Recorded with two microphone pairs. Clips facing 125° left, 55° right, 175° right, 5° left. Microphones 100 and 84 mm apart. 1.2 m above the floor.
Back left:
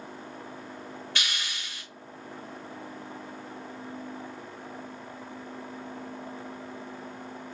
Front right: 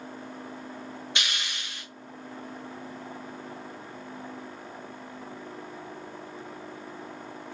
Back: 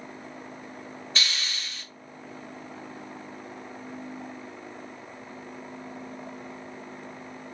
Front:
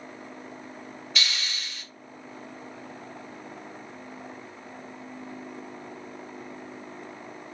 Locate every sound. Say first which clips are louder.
1.1 s a hiss: front right 1 dB, even; 120° right, 1.8 m